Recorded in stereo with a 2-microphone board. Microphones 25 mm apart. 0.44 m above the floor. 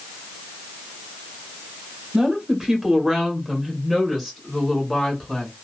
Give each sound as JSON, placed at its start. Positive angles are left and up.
{"t": 2.1, "sound": "a woman speaking", "side_deg": -30, "distance_m": 1.5}